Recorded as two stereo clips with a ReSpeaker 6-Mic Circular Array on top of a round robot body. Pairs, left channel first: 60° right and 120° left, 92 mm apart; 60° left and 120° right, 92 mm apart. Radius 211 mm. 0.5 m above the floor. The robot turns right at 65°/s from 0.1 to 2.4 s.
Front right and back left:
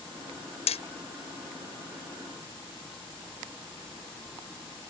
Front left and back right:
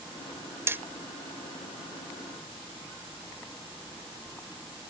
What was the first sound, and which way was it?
Hammering, 55° right.